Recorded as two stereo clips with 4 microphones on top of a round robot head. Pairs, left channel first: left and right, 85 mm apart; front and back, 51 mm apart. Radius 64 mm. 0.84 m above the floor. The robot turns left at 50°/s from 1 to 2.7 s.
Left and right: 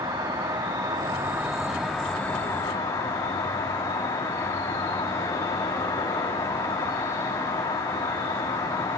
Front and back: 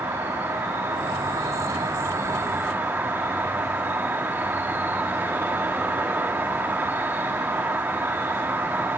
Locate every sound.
0.0 s an insect: 135° right, 2.5 m; by 9.0 s 140° left, 2.5 m